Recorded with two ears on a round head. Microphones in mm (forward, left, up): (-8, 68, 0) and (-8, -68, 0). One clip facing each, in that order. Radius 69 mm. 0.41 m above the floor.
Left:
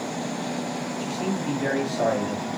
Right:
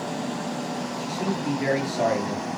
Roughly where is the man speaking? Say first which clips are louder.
Even; centre.